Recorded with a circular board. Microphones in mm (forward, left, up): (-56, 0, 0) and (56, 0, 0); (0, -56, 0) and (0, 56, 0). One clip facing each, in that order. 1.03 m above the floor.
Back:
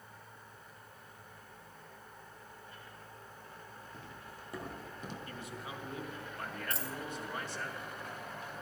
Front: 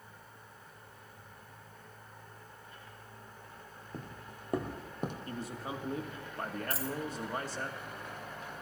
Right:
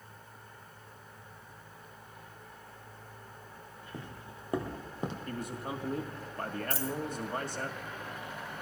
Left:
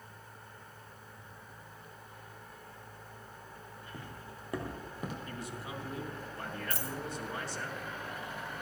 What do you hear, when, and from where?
3.9 s footsteps: 25° right, 1.5 m; by 5.2 s 30° right, 3 m
5.3 s a man speaking: 50° right, 2 m
6.7 s a dropped coin: 85° left, 1.7 m